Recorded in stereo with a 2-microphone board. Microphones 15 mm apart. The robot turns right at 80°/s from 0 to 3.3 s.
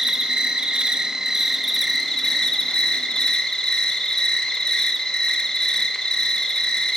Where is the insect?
140° right, 1.0 m; by 7.0 s 125° left, 1.0 m.